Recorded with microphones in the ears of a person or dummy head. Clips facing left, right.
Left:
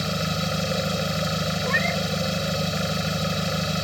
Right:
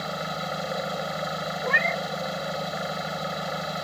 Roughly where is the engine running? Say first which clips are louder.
Left 4 dB; left.